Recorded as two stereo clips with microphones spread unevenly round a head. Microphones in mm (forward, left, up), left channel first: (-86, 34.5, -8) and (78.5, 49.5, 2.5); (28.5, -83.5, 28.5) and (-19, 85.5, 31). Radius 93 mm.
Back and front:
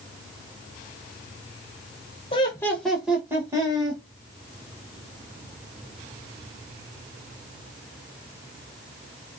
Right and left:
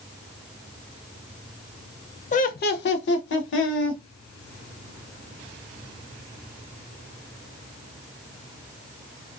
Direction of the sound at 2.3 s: 115° right.